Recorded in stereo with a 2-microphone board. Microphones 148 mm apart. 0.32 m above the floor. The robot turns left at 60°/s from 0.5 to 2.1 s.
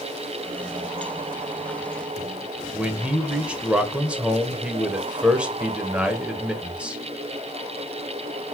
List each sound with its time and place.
2.7 s a man speaking: 10° right (ahead or behind), 0.9 m